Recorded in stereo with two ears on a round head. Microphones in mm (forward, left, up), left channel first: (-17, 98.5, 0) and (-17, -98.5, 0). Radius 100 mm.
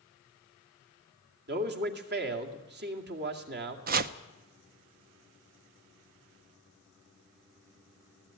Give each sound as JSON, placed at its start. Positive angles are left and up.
{"t": 1.5, "sound": "a man speaking", "side_deg": -50, "distance_m": 2.5}
{"t": 3.9, "sound": "chopping", "side_deg": -40, "distance_m": 0.7}